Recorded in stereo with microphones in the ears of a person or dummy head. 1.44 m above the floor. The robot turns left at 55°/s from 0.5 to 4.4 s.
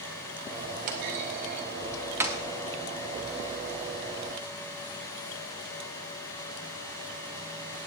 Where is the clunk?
55° right (ahead or behind), 1.3 m; by 2.4 s 5° right (ahead or behind), 1.3 m.